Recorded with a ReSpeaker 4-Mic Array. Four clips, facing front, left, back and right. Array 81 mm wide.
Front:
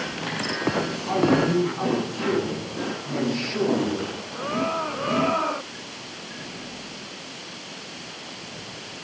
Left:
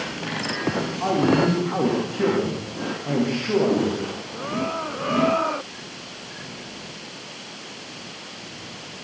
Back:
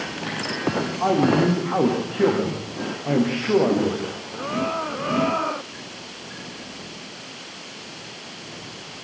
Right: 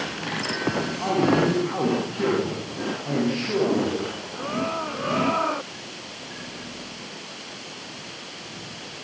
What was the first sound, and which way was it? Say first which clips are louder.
A man speaking: left 2 dB, back 4 dB; 170° left.